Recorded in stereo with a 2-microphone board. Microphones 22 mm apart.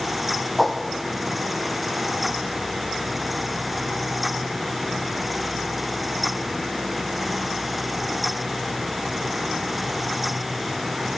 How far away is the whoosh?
About 1.6 m.